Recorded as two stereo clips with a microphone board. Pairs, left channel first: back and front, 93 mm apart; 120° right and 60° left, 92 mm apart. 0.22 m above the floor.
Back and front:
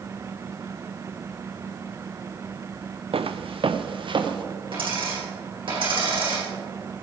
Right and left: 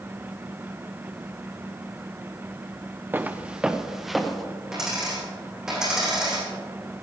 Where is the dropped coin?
25° right, 4.5 m.